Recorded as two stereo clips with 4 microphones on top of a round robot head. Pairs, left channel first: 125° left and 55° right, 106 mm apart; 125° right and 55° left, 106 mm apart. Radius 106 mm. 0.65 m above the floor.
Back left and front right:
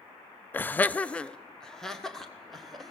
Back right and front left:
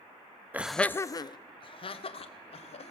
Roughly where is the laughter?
Left.